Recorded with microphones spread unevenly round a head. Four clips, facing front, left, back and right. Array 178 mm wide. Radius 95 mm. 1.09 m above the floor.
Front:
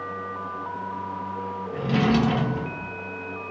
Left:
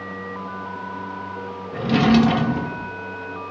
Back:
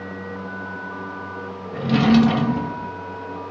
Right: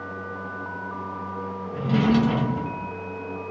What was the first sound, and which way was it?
A drawer, 100° left.